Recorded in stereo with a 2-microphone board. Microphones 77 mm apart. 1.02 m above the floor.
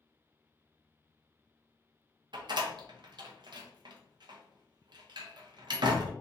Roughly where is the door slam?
Right.